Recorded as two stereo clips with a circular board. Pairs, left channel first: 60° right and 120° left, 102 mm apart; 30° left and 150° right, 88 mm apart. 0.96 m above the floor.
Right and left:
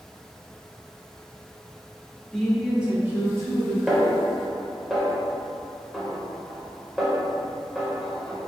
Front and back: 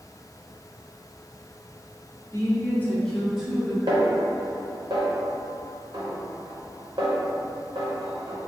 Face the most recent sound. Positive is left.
turn(degrees=-155)